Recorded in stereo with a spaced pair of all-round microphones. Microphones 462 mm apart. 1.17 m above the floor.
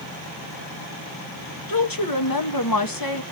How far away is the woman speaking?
About 1.4 m.